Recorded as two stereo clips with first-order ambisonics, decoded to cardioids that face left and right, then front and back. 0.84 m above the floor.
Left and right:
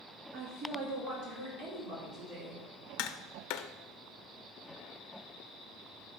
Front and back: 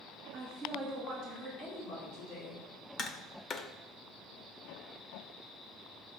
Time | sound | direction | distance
0.3 | a woman speaking | 120° right | 1.4 m
3.0 | tapping | 65° left | 0.6 m